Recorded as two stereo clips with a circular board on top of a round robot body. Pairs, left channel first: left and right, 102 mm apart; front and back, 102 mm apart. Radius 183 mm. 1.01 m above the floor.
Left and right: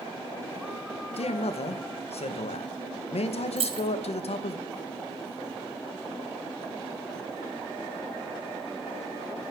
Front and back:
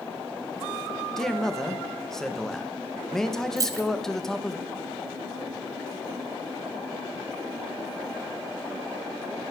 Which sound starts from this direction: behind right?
Keys jangling, at 3.6 s.